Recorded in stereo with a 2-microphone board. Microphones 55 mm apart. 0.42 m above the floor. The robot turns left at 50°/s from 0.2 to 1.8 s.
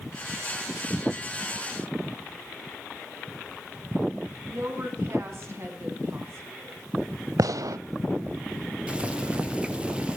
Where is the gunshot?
85° right, 0.5 m.